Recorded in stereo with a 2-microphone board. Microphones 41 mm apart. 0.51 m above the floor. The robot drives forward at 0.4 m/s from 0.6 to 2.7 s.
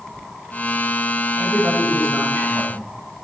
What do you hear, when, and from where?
1.4 s a man speaking: 65° right (ahead or behind), 2.5 m; by 3.2 s 70° right (ahead or behind), 2.5 m